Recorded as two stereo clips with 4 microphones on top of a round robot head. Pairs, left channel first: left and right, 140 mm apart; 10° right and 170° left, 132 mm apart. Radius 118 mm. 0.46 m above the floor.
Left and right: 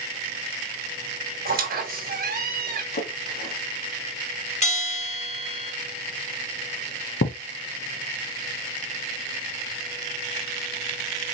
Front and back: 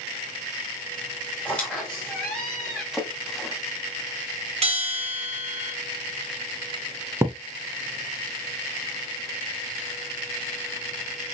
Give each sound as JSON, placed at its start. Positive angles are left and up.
{"t": 1.4, "sound": "a squeak", "azimuth_deg": -95, "distance_m": 2.0}
{"t": 2.9, "sound": "a splash", "azimuth_deg": 80, "distance_m": 1.8}
{"t": 4.6, "sound": "a bell", "azimuth_deg": 130, "distance_m": 2.5}
{"t": 7.2, "sound": "a thud", "azimuth_deg": 100, "distance_m": 0.7}